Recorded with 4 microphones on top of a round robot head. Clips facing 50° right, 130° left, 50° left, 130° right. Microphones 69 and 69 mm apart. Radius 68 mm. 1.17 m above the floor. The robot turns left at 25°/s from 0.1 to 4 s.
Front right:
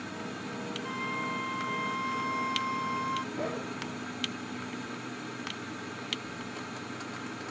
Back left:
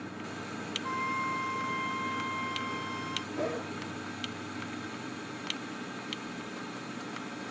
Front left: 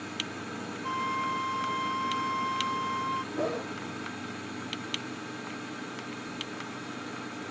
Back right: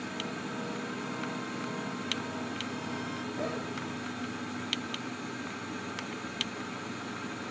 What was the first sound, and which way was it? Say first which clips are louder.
A flute: back left 4 dB, front left 6 dB; 65° left.